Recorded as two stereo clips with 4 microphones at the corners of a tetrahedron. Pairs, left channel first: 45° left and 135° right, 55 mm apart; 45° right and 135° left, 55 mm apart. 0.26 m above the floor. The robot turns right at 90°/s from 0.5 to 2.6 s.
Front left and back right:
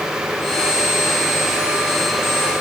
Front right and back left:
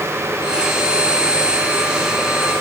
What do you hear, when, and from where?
Only background noise.